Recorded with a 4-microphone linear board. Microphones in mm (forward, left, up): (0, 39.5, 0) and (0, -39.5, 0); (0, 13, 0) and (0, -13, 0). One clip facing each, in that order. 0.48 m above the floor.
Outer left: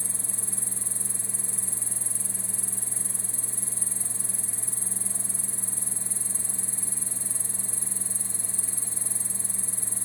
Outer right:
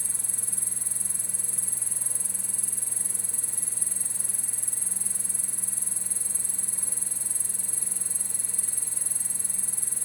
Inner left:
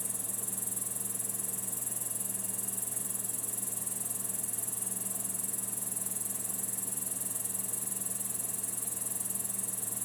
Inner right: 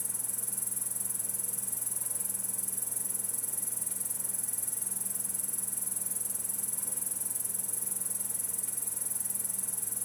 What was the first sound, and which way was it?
An insect, 55° right (ahead or behind).